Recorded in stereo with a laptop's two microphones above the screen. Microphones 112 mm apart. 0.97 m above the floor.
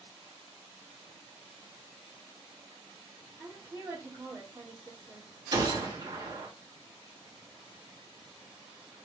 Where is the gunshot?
40° right (ahead or behind), 3 m.